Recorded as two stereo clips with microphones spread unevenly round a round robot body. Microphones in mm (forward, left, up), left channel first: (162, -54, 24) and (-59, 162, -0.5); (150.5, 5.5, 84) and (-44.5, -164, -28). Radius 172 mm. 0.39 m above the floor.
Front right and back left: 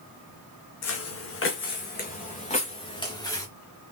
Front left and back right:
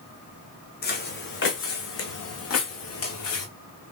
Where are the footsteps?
5° right, 1.5 m; by 3.5 s 35° left, 2.0 m.